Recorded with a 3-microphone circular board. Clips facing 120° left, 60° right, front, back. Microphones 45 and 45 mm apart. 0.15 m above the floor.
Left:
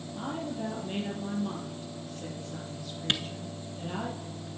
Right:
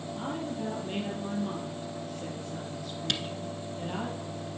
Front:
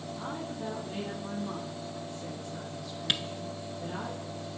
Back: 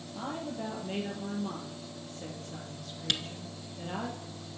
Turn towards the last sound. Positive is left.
turn(degrees=65)